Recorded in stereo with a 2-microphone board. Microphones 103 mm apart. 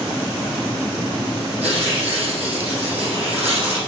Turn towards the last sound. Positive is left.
turn(degrees=-75)  # may be behind; listen again after turning